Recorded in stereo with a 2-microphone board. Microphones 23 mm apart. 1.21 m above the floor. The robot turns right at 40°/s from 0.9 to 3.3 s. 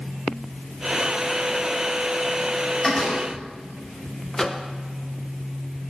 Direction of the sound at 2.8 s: 20° left (ahead or behind).